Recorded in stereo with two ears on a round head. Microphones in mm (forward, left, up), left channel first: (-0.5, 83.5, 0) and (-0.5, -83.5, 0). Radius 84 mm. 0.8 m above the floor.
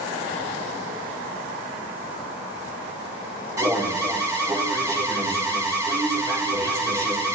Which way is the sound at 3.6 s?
20° right (ahead or behind).